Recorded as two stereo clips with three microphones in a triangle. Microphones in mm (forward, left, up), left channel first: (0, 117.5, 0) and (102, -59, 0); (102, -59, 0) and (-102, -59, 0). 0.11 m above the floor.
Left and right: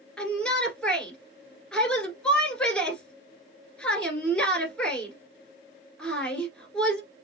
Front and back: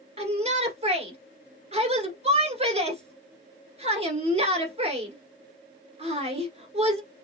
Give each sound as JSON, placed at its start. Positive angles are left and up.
{"t": 0.2, "sound": "a shout", "azimuth_deg": -160, "distance_m": 1.4}